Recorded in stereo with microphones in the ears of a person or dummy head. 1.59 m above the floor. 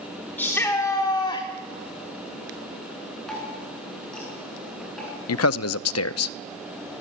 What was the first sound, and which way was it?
A shout, 5° left (ahead or behind).